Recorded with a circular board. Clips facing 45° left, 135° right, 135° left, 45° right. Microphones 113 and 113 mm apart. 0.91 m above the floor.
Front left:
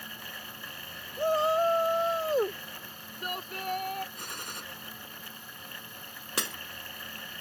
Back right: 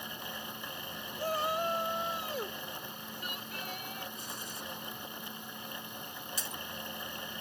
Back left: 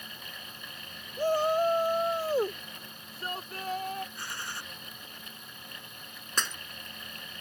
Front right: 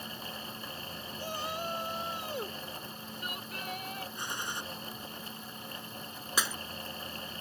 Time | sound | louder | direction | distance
1.2 | a shout | front left 8 dB, back left 13 dB | 105° left | ?
4.2 | a gunshot | front left 2 dB, front right 2 dB | 25° left | ?
6.4 | breaking glass | front left 11 dB, even | 40° left | ?